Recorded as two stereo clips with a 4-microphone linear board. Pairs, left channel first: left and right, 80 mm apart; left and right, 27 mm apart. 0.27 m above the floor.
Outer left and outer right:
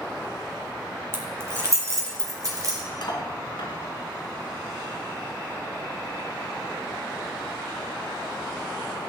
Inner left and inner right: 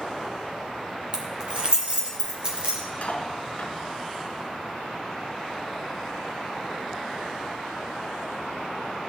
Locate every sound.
1.1 s keys jangling: 35° right (ahead or behind), 2 m; by 2.8 s 45° right (ahead or behind), 3.5 m
3.0 s cutlery clinking: 70° left (ahead or behind), 1.8 m